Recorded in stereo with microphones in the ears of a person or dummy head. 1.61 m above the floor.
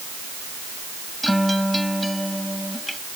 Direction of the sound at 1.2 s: 5° left (ahead or behind).